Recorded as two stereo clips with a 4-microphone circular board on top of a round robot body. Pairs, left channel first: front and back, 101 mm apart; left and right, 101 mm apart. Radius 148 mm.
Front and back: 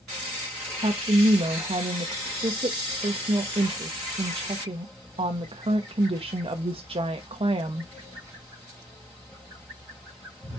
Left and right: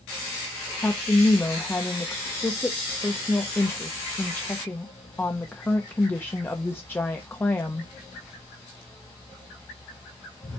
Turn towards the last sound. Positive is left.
turn(degrees=160)